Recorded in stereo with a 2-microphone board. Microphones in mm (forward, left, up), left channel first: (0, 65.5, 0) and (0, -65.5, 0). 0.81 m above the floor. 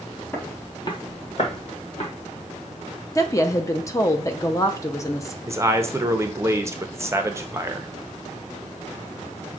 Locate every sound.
0.3 s footsteps: 20° left (ahead or behind), 0.8 m; by 2.1 s 55° left (ahead or behind), 1.4 m
3.1 s a woman speaking: 25° left (ahead or behind), 0.5 m
5.5 s a man speaking: 20° right (ahead or behind), 0.5 m